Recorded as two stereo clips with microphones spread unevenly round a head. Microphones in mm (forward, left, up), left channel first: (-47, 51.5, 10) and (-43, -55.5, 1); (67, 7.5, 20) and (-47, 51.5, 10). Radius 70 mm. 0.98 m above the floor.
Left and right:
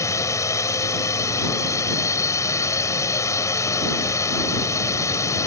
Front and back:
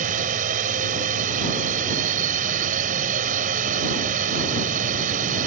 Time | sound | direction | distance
0.0 | a drone | 150° left | ?